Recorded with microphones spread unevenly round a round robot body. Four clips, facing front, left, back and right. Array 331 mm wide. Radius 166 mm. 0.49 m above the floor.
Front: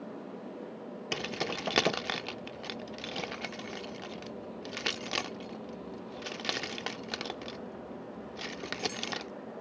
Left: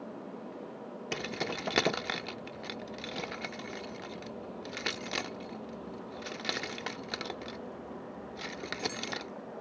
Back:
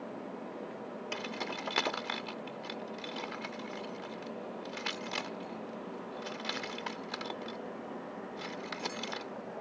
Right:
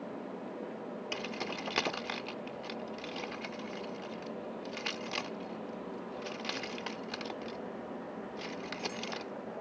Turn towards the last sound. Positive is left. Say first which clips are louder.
# left 5 dB, front 5 dB
turn(degrees=45)